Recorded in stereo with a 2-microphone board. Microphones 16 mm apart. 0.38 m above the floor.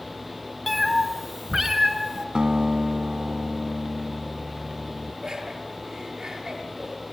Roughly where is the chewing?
No chewing in this recording.